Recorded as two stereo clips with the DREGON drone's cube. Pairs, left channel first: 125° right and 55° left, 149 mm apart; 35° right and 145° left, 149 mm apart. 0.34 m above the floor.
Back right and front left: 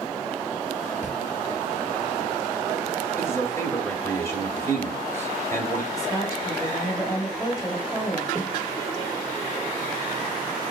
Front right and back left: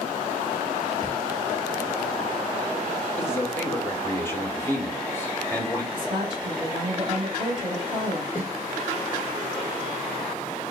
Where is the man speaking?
80° right, 0.9 m.